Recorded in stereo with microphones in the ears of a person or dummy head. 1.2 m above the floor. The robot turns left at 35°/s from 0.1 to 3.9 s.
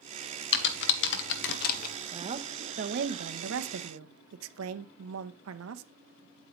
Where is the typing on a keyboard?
55° left (ahead or behind), 1.0 m; by 1.9 s 45° left (ahead or behind), 1.0 m.